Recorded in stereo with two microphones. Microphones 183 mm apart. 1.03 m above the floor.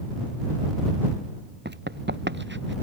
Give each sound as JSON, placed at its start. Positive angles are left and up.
{"t": 1.6, "sound": "running footsteps", "side_deg": -65}